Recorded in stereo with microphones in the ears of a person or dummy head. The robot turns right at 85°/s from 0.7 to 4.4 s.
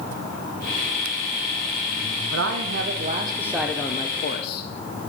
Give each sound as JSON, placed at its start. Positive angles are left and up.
{"t": 2.3, "sound": "a man speaking", "azimuth_deg": -100, "distance_m": 0.9}